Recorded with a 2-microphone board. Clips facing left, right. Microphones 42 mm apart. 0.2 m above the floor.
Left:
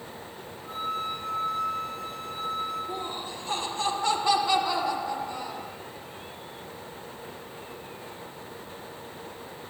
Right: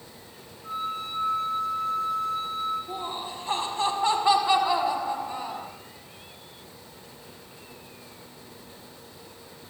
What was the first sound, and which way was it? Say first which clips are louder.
A flute: even; 20° right (ahead or behind).